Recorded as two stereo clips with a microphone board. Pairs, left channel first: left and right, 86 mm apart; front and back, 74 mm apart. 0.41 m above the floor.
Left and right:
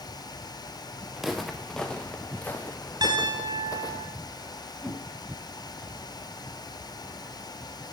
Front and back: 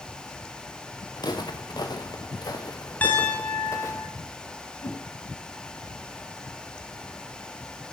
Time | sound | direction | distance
1.2 | footsteps | 5° right | 3 m
3.0 | a piano | 65° right | 5 m
4.8 | a whoosh | 10° left | 4.5 m